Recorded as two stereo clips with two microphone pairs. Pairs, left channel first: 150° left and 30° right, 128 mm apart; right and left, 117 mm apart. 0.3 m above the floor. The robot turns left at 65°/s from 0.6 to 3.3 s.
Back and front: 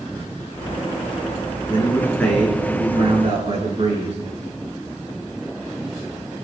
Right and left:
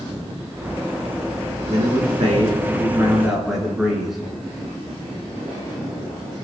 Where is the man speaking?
105° left, 4 m; by 4.2 s straight ahead, 4 m.